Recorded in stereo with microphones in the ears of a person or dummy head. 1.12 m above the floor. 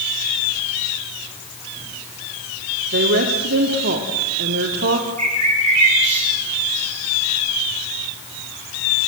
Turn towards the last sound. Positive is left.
turn(degrees=-35)  # may be behind; listen again after turning